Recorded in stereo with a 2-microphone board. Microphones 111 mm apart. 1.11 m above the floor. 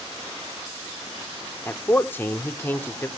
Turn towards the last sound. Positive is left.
turn(degrees=20)  # may be behind; listen again after turning